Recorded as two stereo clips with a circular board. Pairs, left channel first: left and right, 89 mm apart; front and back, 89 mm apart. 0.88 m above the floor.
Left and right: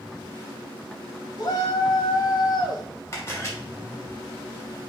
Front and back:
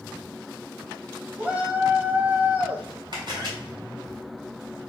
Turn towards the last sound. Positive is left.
turn(degrees=145)